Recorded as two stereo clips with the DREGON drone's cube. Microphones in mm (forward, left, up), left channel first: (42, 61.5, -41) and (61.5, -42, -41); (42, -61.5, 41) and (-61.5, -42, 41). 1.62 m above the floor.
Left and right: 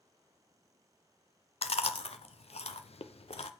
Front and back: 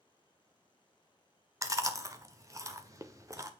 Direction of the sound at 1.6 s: 115° left.